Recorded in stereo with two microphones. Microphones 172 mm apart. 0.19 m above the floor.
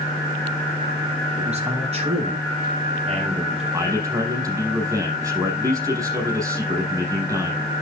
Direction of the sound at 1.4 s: 40° right (ahead or behind).